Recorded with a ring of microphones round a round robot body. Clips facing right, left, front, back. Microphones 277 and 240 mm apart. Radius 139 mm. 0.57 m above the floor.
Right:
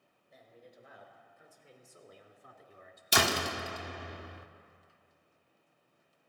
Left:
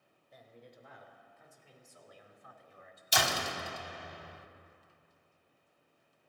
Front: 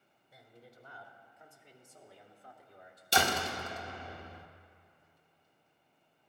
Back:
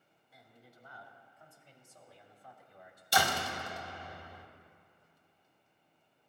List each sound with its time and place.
0.3 s a man speaking: straight ahead, 3 m; by 3.0 s 65° right, 1.7 m
3.1 s a door slam: 65° right, 0.8 m